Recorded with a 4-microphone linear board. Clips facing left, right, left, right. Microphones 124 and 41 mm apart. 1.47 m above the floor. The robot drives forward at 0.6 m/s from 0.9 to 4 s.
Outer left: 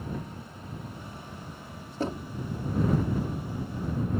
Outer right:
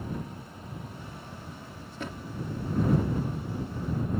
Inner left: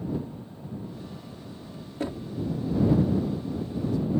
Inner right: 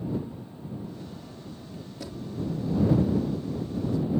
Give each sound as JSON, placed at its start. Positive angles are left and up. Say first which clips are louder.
{"t": 2.0, "sound": "knocking", "louder": "outer left 7 dB, inner left 6 dB", "side_deg": 35}